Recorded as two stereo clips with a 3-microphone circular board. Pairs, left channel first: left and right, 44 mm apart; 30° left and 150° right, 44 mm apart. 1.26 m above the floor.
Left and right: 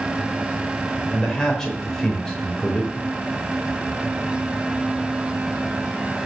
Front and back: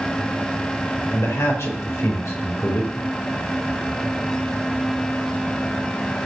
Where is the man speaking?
10° left, 5 m.